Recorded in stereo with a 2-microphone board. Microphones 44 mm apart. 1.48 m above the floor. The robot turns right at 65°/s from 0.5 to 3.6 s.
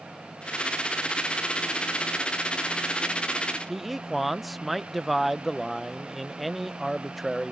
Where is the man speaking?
5° right (ahead or behind).